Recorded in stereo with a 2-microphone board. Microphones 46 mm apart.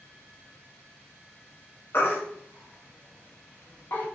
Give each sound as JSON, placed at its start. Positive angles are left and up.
{"t": 1.9, "sound": "a baby crying", "side_deg": 45, "distance_m": 1.3}